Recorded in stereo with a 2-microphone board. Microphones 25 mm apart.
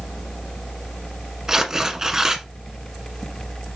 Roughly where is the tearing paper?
Right.